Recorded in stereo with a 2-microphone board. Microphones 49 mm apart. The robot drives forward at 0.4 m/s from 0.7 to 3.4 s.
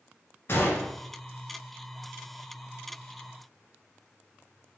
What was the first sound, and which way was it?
A gunshot, 55° left (ahead or behind).